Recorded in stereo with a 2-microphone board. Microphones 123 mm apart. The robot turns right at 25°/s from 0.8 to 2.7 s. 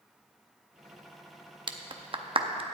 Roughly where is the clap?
Right.